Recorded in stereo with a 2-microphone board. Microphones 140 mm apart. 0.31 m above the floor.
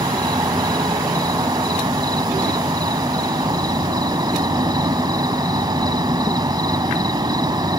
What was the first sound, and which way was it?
An insect, 30° right (ahead or behind).